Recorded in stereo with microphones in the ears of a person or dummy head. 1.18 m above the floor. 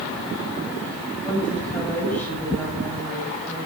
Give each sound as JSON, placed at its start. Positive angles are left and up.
{"t": 1.2, "sound": "a woman speaking", "side_deg": 10, "distance_m": 8.0}